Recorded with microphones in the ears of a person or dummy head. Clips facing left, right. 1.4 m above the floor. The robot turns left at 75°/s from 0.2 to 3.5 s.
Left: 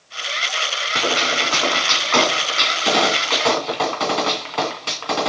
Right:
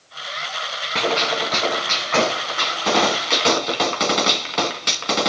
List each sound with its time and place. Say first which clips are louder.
0.9 s a gunshot: right 1 dB; 170° left, 2.5 m; by 5.3 s 20° right, 2.5 m